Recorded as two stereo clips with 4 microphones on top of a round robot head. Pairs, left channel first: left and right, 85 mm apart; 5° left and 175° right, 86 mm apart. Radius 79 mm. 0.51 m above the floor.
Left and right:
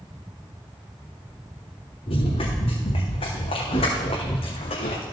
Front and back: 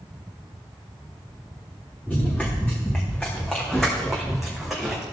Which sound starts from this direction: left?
Running footsteps, at 2.1 s.